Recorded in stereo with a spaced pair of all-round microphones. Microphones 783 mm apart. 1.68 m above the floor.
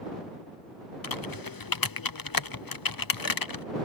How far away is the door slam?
No door slam in this recording.